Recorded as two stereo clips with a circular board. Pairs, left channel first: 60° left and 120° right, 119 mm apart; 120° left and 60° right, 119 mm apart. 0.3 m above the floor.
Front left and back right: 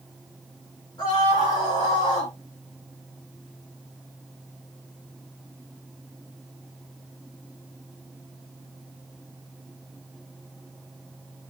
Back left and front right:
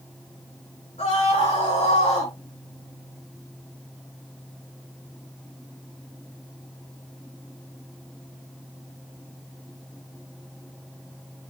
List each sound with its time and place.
1.0 s a scream: 115° left, 4.5 m; by 2.3 s 105° left, 4 m